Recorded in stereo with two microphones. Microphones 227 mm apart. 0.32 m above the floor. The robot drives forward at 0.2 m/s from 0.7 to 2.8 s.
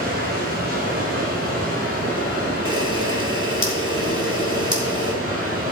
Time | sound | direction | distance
0.0 | running water | 40° right (ahead or behind) | 5 m
2.6 | a camera shutter | 60° left (ahead or behind) | 3 m